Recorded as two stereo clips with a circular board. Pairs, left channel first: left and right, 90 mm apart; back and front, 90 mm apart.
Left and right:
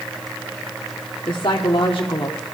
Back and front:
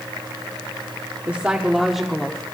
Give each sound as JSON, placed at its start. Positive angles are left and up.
{"t": 1.3, "sound": "a woman speaking", "azimuth_deg": 65, "distance_m": 1.1}